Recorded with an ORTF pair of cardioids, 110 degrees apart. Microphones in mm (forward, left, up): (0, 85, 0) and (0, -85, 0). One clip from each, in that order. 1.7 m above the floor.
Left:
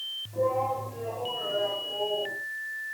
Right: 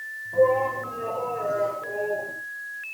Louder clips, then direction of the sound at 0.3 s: Right 7 dB; 50° right.